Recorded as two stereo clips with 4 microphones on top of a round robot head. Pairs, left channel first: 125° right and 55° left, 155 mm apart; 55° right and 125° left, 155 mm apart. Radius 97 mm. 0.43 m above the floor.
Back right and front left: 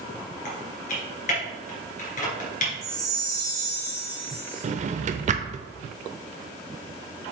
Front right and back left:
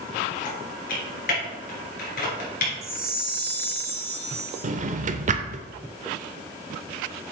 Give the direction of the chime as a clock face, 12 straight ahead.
8 o'clock.